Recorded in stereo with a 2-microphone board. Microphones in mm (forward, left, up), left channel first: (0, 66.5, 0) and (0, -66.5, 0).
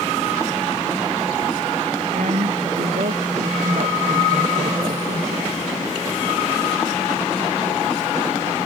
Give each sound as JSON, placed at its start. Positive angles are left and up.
{"t": 2.1, "sound": "a woman speaking", "side_deg": -70}